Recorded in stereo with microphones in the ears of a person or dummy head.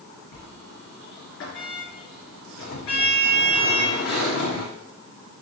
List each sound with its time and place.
0.3 s a sliding door: 65° left (ahead or behind), 3 m